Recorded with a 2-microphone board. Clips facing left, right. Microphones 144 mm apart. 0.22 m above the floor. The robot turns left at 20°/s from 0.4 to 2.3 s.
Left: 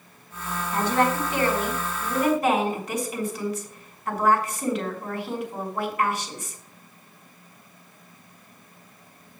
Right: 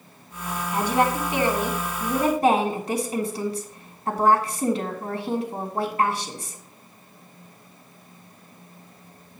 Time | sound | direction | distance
0.7 | a woman speaking | 15° right | 2.5 m